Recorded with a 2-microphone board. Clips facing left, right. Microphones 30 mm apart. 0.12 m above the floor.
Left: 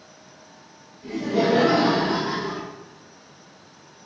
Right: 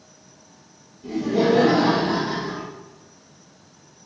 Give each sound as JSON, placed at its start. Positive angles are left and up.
{"t": 1.0, "sound": "laughter", "side_deg": 25, "distance_m": 1.8}